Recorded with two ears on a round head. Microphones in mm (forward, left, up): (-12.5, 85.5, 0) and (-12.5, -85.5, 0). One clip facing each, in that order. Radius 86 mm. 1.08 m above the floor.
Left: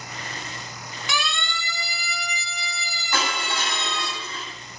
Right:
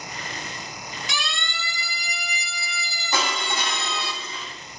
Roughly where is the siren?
Left.